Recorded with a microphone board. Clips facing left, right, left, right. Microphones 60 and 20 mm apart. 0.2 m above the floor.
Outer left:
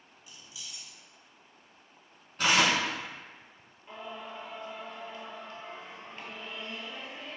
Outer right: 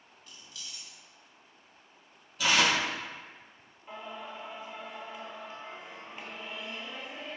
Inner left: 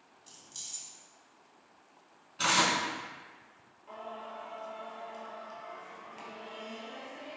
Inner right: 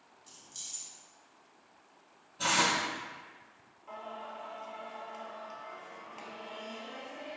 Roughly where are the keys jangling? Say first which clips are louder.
Even, inner left 1 dB; centre.